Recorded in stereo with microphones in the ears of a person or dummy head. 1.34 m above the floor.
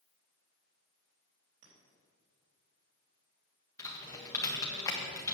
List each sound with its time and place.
1.6 s a clink: 80° right, 3.5 m
3.8 s typing on a keyboard: 15° left (ahead or behind), 1.5 m